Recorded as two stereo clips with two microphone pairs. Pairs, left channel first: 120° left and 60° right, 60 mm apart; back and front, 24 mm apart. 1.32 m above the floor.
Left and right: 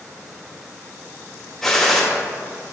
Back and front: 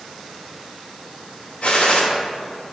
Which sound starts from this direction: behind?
A gunshot, at 1.6 s.